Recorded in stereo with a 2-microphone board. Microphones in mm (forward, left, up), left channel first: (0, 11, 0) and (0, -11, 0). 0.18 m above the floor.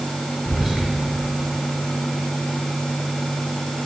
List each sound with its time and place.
0.5 s whispering: 5° right (ahead or behind), 1.3 m